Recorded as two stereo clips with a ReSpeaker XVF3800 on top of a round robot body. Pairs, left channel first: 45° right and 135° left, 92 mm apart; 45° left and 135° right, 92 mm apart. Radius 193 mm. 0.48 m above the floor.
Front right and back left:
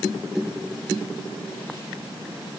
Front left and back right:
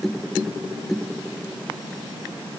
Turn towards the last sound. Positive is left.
No sound to turn to.